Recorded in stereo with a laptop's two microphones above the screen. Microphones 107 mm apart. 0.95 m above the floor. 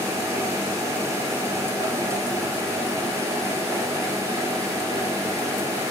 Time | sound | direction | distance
0.0 | a machine running | 30° right (ahead or behind) | 4 m